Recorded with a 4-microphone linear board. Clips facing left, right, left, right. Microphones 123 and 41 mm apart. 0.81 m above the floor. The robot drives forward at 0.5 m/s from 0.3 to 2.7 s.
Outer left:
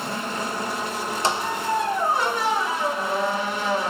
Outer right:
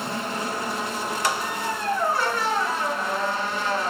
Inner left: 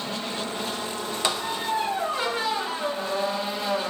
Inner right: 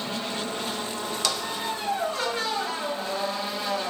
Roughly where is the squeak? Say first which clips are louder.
Outer left 4 dB, inner left 4 dB; left.